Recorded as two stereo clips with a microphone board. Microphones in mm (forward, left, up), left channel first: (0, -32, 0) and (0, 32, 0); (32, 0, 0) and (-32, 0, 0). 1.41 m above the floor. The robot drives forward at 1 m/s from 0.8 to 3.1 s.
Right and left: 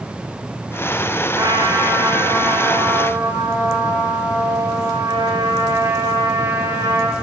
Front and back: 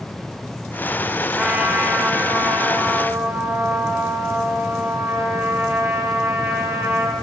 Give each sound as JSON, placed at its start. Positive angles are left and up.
{"t": 1.4, "sound": "a trumpet", "azimuth_deg": 100, "distance_m": 4.5}